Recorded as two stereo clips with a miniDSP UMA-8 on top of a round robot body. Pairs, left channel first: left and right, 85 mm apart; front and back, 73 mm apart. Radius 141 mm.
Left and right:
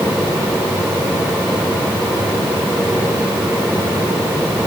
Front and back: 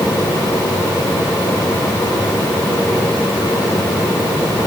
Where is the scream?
I don't hear a scream.